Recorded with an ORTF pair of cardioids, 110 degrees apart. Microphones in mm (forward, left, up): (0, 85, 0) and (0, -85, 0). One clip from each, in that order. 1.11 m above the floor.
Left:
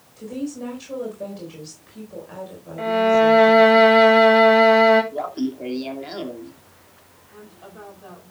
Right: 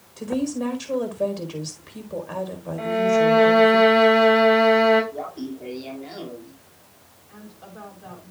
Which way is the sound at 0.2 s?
45° right.